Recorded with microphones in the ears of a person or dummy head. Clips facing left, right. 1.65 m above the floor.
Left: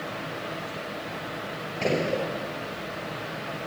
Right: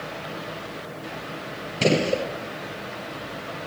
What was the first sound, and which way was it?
A gunshot, 45° right (ahead or behind).